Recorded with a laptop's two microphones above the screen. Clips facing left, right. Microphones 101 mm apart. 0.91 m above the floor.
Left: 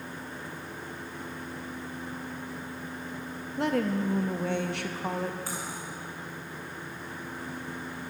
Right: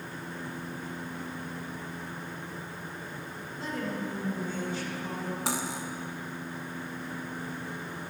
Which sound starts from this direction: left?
A woman speaking, at 3.6 s.